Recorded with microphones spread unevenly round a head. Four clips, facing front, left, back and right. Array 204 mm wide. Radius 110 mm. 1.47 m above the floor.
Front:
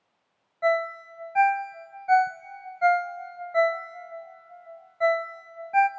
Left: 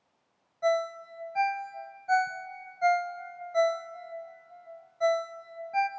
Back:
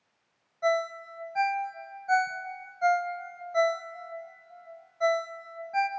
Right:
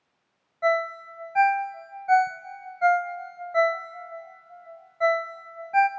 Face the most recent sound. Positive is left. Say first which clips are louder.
# right 3 dB, front 3 dB
turn(degrees=-50)